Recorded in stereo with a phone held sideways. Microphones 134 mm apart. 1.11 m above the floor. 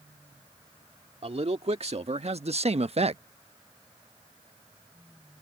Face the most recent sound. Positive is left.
turn(degrees=-50)  # may be behind; listen again after turning